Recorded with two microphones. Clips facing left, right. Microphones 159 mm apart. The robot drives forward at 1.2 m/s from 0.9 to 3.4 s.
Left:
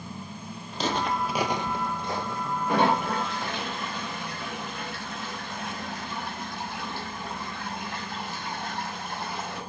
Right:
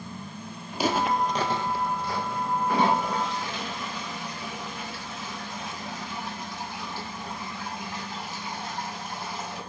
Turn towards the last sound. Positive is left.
turn(degrees=55)  # may be behind; listen again after turning